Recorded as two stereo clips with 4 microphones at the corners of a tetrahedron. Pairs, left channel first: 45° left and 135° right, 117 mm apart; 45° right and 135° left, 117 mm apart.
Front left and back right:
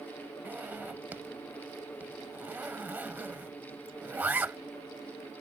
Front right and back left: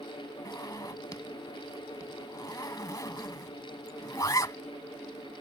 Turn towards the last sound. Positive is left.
turn(degrees=-70)